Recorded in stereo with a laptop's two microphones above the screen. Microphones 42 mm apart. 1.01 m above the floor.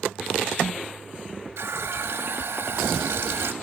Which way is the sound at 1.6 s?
85° right.